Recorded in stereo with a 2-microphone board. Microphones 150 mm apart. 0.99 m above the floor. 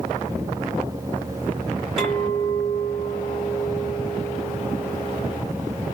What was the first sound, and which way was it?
A clink, 5° right (ahead or behind).